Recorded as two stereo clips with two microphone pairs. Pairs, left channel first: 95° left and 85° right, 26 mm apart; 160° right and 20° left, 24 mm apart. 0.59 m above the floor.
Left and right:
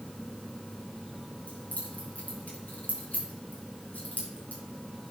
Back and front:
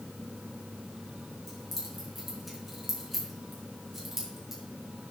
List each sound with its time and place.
1.5 s keys jangling: 115° left, 5 m; by 4.6 s 95° left, 5 m